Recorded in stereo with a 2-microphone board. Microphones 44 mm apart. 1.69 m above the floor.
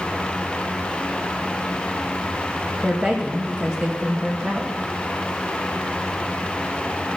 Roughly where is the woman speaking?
Centre.